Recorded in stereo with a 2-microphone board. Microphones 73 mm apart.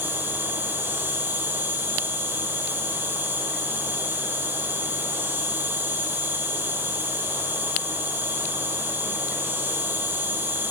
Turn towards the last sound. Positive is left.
turn(degrees=-35)  # may be behind; listen again after turning